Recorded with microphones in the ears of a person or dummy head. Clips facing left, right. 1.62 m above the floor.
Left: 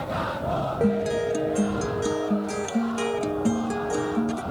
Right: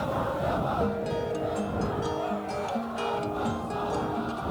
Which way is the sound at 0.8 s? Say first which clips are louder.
Left 6 dB; 25° left (ahead or behind).